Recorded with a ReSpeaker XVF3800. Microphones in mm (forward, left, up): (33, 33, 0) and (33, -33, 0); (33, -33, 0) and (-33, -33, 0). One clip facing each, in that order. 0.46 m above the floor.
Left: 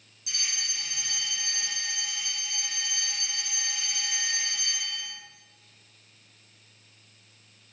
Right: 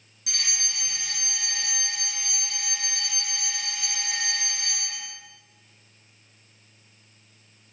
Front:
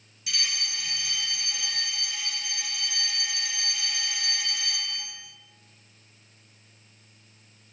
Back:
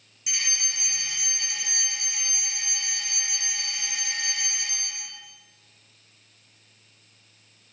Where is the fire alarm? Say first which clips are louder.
Right 2 dB, even; 110° right, 6.5 m.